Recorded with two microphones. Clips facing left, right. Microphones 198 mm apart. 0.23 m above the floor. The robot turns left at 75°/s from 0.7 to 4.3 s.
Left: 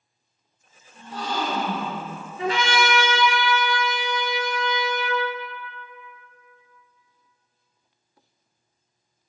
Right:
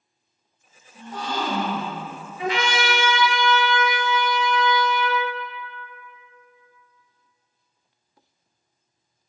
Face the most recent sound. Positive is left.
turn(degrees=5)